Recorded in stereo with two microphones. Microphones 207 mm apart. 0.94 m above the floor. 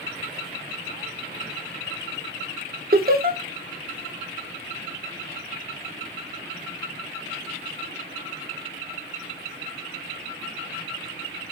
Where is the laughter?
45° right (ahead or behind), 0.5 m.